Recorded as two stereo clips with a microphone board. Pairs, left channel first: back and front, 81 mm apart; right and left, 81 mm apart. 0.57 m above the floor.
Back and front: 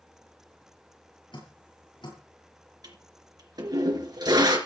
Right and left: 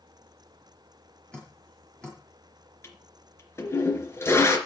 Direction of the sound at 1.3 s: 170° right.